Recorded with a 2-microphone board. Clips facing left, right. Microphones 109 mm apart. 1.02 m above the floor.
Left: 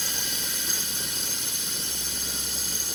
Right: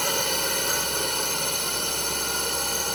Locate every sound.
0.0 s a drone: 65° right (ahead or behind)